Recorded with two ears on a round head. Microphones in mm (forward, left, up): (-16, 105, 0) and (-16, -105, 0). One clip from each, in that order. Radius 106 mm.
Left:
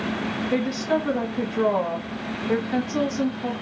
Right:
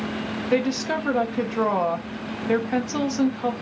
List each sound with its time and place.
0.5 s a woman speaking: 30° right (ahead or behind), 0.6 m